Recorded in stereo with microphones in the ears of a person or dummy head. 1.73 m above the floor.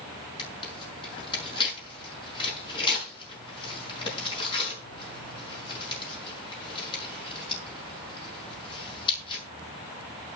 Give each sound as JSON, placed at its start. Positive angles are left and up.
{"t": 0.4, "sound": "tearing paper", "side_deg": 20, "distance_m": 6.0}